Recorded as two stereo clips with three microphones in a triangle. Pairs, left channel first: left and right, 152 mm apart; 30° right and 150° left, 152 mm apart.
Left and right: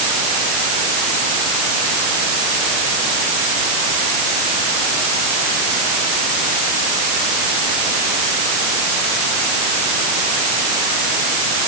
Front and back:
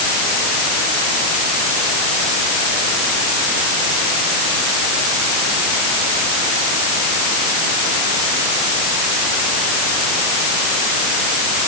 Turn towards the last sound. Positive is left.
No sound to turn to.